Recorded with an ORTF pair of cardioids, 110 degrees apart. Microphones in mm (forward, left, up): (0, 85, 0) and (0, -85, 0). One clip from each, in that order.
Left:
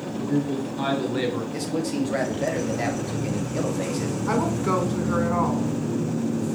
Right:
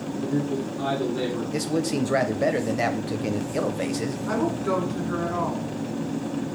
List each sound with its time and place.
0.2 s a man speaking: 60° left, 1.1 m
1.5 s a man speaking: 20° right, 0.5 m
4.3 s a woman speaking: 30° left, 1.0 m